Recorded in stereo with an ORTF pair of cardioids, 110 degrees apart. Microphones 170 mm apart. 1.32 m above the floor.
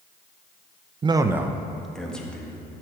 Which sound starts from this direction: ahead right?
A man speaking, at 1.0 s.